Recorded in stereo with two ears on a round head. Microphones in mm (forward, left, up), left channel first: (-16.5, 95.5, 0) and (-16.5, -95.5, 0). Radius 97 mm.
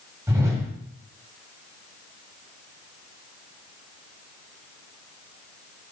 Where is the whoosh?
15° right (ahead or behind), 1.6 m.